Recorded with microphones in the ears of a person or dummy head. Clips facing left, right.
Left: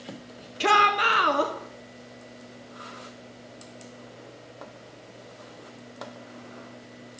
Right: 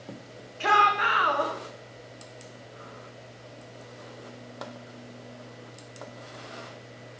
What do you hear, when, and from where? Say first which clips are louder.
0.6 s a shout: left 2 dB; 40° left (ahead or behind), 0.8 m